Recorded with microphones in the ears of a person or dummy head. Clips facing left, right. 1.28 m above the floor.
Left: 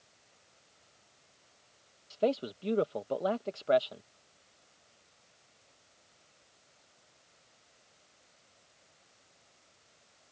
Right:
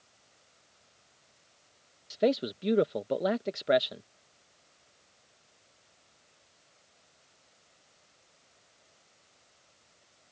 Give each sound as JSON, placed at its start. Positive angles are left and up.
{"t": 2.1, "sound": "a man speaking", "side_deg": -20}